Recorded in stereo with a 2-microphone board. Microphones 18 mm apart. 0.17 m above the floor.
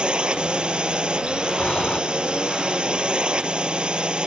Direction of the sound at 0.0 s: 70° right (ahead or behind).